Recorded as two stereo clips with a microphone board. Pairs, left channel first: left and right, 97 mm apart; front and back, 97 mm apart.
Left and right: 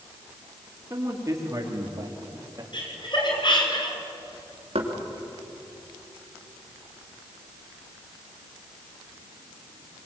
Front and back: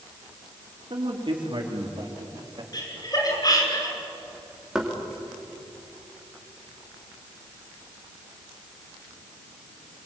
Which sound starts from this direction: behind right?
A man speaking, at 0.9 s.